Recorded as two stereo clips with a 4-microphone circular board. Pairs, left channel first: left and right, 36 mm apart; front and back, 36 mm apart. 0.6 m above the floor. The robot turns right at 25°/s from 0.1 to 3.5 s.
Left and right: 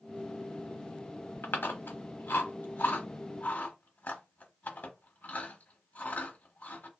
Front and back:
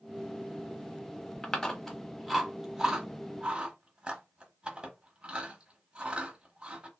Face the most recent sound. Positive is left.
turn(degrees=120)